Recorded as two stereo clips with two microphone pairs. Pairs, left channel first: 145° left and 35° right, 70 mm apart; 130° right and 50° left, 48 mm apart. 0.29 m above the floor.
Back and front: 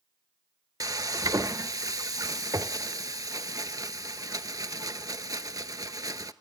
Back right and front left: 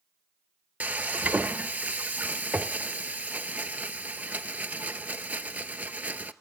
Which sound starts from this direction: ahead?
Frying, at 0.8 s.